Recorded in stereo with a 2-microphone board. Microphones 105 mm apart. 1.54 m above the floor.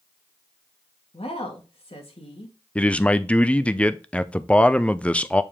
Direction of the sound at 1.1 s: 75° left (ahead or behind).